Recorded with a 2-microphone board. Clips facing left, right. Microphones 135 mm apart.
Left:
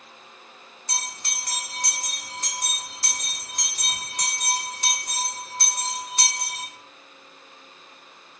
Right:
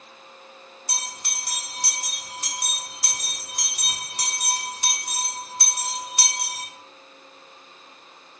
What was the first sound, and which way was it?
A bell, 10° right (ahead or behind).